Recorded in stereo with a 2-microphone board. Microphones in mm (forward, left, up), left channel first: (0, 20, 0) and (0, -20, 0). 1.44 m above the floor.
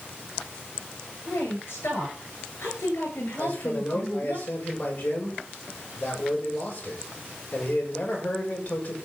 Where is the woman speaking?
70° left (ahead or behind), 9.5 m.